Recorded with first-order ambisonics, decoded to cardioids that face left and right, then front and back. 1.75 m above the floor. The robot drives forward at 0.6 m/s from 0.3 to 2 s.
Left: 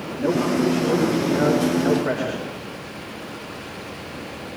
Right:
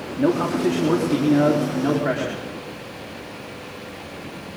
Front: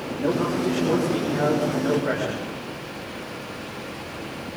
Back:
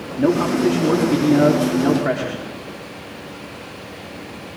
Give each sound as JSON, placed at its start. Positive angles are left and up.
{"t": 0.2, "sound": "a man speaking", "azimuth_deg": -140, "distance_m": 4.5}